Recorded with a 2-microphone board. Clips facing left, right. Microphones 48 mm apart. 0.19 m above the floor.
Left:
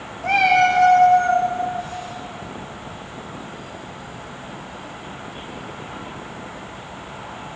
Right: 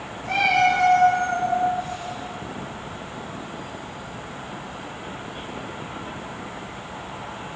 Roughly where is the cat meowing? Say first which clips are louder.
Left 4 dB; left.